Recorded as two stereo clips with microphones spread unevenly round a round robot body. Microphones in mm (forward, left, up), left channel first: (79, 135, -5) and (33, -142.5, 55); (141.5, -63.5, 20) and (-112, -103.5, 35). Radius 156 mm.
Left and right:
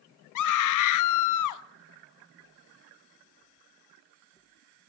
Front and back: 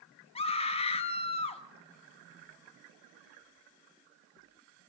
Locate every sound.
0.3 s a scream: 80° left, 0.9 m